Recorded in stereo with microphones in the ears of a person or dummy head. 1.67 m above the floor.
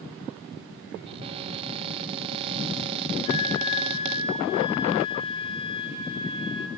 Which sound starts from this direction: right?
A cupboard door, at 1.1 s.